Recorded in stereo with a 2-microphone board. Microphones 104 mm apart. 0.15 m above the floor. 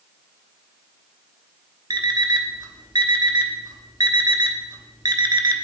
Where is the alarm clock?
45° right (ahead or behind), 0.9 m.